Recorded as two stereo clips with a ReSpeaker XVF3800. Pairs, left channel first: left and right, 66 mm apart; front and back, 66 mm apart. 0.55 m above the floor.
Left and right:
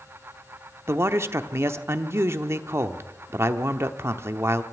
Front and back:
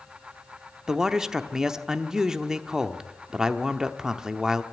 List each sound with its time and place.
0.9 s a man speaking: 105° right, 0.9 m